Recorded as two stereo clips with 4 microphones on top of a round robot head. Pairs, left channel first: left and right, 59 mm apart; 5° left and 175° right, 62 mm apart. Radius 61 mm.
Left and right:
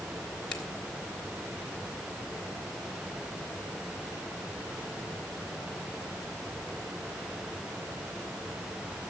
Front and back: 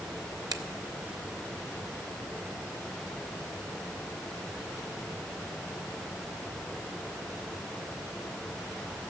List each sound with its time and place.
0.5 s a finger snap: 170° left, 1.5 m